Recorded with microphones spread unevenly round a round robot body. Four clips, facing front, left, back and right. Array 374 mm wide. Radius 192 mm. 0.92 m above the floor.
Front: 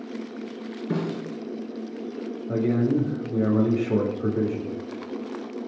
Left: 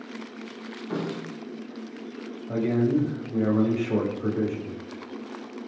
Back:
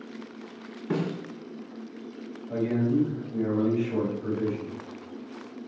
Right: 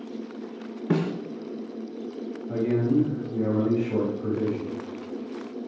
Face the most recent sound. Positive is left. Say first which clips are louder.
# even, front 3 dB
turn(degrees=10)